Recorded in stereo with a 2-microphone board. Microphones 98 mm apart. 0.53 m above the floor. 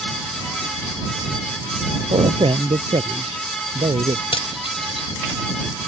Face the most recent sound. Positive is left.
turn(degrees=70)  # may be behind; listen again after turning